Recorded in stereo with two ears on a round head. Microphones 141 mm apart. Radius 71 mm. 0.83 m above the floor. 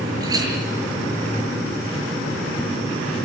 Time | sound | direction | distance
0.2 | a clink | 25° right (ahead or behind) | 7.5 m